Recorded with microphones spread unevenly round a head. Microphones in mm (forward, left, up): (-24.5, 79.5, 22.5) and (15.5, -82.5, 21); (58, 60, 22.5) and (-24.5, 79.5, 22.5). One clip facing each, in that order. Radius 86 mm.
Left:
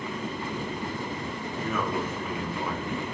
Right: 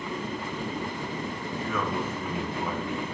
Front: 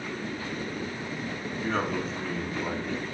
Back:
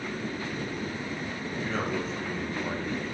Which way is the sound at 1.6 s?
20° left.